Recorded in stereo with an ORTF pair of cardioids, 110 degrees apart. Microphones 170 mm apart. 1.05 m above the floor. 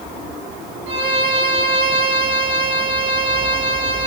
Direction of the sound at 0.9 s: 30° right.